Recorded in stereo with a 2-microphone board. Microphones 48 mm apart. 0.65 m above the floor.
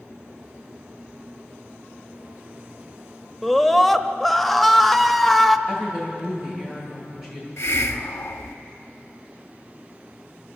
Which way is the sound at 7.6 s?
75° left (ahead or behind).